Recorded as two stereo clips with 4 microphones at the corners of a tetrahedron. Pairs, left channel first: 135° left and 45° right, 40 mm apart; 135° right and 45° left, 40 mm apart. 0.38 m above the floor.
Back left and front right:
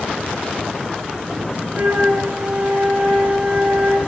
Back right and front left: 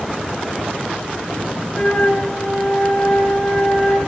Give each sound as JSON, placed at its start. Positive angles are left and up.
{"t": 1.7, "sound": "a flute", "azimuth_deg": -60, "distance_m": 2.5}